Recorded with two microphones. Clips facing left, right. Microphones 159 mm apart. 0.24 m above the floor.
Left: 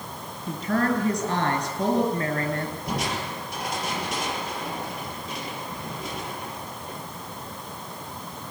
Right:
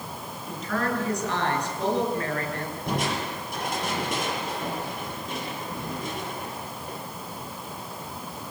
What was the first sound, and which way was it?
A woman speaking, 35° left (ahead or behind).